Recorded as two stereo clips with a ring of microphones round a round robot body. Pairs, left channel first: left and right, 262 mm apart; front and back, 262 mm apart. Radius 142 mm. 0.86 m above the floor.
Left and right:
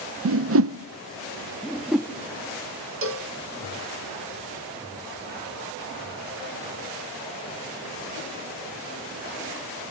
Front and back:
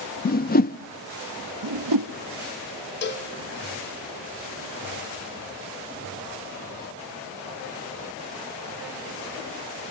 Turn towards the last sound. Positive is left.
turn(degrees=-50)